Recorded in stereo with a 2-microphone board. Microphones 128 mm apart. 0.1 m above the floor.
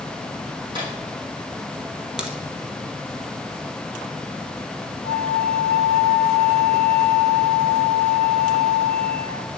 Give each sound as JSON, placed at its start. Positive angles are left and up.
{"t": 0.7, "sound": "a microwave", "side_deg": -35, "distance_m": 4.0}
{"t": 2.2, "sound": "a crack", "side_deg": -5, "distance_m": 1.1}
{"t": 5.0, "sound": "a flute", "side_deg": -55, "distance_m": 0.9}